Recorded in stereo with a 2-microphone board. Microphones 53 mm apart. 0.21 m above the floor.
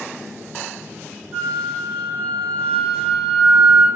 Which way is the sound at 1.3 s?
20° left (ahead or behind).